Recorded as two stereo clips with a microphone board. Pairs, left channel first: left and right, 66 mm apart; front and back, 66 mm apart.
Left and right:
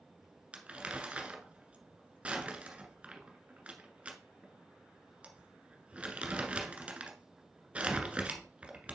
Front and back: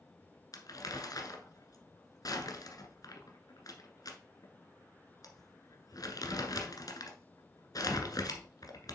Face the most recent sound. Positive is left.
turn(degrees=-20)